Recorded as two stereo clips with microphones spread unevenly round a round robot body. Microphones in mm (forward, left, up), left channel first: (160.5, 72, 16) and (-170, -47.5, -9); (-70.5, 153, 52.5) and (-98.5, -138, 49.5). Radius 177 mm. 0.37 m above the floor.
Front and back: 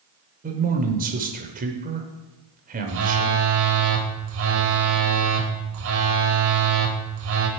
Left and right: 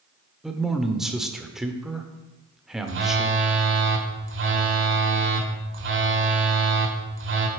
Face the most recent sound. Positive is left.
turn(degrees=-130)